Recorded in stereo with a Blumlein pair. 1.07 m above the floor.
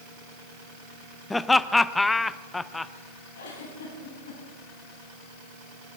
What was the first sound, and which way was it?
Laughter, 10° left.